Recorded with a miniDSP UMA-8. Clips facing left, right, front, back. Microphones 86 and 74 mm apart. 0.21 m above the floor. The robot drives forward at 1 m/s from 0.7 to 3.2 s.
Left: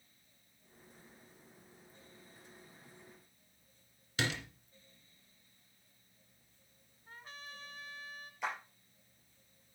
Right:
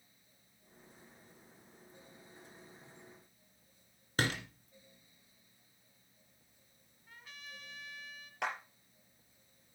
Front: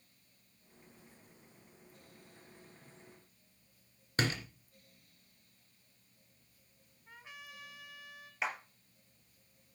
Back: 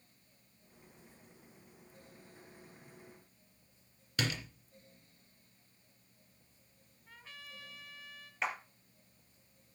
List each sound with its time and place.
4.2 s a door slam: 50° right, 2 m
7.1 s a trumpet: 65° left, 1.1 m
8.4 s a clap: 90° right, 3.5 m